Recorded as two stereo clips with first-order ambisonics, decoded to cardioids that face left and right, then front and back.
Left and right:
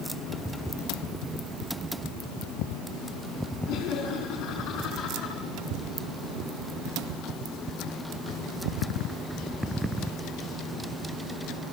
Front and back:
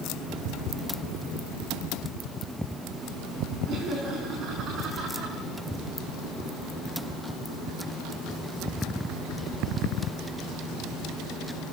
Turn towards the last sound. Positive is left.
turn(degrees=130)